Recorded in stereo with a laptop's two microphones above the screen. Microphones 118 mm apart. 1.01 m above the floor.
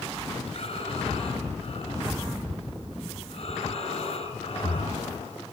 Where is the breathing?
60° left (ahead or behind), 5 m.